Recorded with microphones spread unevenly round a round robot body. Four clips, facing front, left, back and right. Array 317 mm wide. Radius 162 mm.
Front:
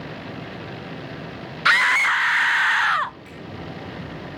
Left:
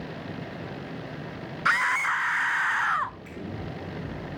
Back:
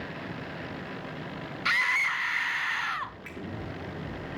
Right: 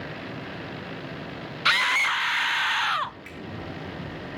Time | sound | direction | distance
1.6 | a scream | 30° right | 0.9 m
3.2 | a finger snap | 135° right | 8.5 m